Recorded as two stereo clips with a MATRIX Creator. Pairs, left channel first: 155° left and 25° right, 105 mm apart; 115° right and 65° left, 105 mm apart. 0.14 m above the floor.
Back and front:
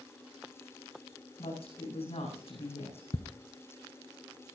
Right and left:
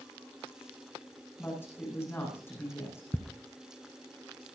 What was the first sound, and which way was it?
A woman speaking, straight behind.